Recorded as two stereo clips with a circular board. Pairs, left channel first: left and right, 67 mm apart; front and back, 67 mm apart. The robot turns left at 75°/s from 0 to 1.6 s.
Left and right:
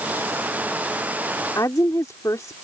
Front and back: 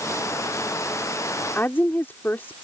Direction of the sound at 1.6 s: 60° left.